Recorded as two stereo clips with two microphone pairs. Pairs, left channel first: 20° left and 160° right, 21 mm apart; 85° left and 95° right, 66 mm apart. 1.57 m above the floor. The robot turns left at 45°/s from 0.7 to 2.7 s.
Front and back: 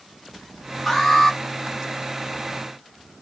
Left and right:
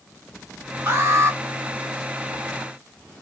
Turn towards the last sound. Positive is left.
turn(degrees=-140)